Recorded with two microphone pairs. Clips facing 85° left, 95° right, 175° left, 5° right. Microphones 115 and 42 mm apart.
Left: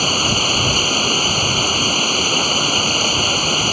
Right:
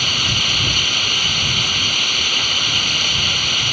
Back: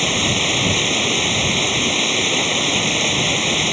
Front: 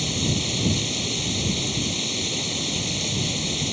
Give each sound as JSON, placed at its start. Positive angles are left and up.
{"t": 0.0, "sound": "running water", "azimuth_deg": 140}